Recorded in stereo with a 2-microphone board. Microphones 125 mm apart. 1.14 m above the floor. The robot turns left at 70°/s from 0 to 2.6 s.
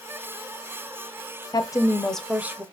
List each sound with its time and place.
1.5 s a woman speaking: 50° left, 0.6 m; by 2.6 s 25° right, 0.6 m